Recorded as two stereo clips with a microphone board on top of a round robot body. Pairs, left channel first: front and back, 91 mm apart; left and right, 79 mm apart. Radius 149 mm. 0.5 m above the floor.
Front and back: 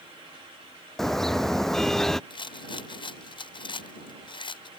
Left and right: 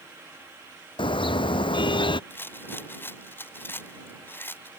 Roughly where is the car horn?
Left.